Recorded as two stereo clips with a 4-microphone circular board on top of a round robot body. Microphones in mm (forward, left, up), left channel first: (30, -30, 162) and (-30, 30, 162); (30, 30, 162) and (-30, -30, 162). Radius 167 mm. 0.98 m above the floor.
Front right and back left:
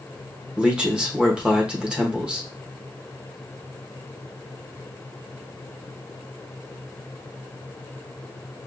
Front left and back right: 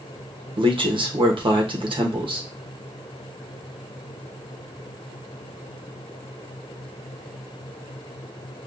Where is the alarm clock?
I don't hear an alarm clock.